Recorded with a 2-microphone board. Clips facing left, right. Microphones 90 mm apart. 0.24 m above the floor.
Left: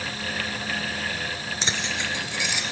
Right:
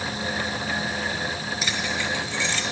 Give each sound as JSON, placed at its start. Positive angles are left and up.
{"t": 1.6, "sound": "keys jangling", "side_deg": 30, "distance_m": 2.5}